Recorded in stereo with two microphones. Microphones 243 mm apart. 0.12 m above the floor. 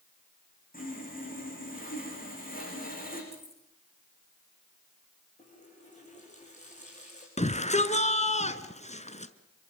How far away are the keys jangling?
About 6.5 m.